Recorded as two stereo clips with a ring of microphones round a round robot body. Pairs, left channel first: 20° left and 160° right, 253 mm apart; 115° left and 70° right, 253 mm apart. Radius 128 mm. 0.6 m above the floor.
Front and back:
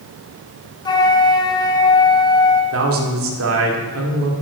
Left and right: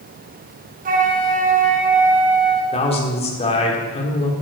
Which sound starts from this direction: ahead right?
A flute, at 0.8 s.